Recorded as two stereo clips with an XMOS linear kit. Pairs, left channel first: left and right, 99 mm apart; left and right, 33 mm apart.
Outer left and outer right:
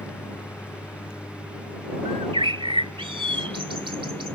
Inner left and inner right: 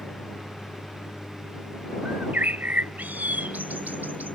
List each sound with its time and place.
0.0 s a lawn mower: 25° left (ahead or behind); by 4.3 s 20° left (ahead or behind)
2.0 s a bird: 65° right (ahead or behind)